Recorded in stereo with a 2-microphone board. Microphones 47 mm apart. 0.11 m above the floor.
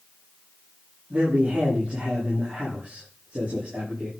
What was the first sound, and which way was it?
A man speaking, 35° right (ahead or behind).